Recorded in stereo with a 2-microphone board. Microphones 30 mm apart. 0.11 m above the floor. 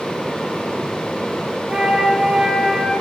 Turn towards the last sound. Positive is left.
turn(degrees=-25)  # may be behind; listen again after turning